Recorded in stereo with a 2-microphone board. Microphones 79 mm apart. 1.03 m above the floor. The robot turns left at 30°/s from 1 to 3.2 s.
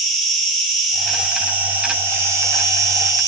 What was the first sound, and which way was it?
An insect, 5° right.